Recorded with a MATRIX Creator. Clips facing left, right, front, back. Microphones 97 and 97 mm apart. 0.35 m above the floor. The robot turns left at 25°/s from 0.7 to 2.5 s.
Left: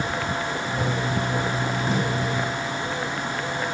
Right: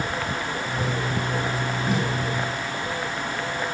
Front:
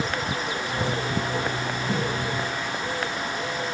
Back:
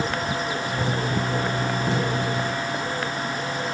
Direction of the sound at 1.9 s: 175° right.